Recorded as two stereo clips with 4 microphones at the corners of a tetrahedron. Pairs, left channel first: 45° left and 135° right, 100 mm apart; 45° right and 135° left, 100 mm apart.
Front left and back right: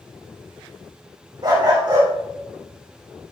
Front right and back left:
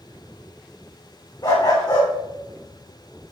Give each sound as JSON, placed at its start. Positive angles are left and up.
{"t": 1.4, "sound": "a dog barking", "azimuth_deg": -90, "distance_m": 4.5}